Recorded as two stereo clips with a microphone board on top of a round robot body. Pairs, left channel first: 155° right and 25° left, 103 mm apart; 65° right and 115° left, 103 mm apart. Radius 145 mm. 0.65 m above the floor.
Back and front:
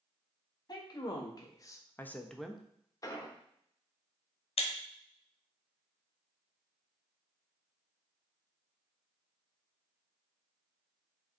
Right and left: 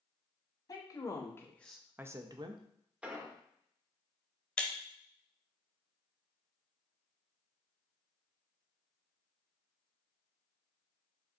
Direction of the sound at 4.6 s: 150° right.